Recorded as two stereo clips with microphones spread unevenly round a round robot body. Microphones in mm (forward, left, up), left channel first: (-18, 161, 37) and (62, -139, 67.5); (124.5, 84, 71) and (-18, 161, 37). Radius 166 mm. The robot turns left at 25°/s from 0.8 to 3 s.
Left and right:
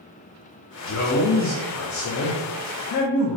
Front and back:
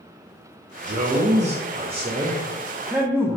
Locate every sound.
0.8 s a man speaking: 135° left, 0.6 m; by 3.4 s 80° left, 0.6 m